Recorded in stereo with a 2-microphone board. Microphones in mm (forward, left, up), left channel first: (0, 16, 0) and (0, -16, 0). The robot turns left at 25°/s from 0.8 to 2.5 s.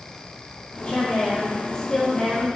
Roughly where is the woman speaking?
Ahead left.